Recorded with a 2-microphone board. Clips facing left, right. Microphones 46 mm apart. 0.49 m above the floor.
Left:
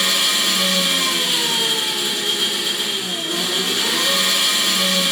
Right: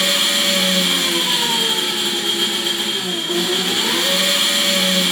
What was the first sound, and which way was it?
An engine running, 40° right (ahead or behind).